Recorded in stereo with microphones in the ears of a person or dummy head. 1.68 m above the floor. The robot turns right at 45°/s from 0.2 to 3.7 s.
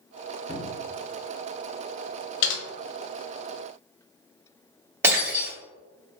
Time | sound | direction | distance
0.5 | a cupboard door | 35° left (ahead or behind) | 0.7 m
2.4 | typing on a keyboard | 55° left (ahead or behind) | 1.1 m
5.0 | breaking glass | 20° right (ahead or behind) | 2.0 m